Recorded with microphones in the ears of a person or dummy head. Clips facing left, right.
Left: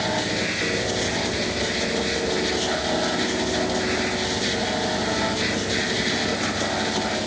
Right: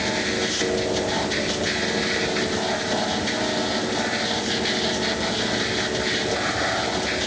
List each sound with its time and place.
Only background noise.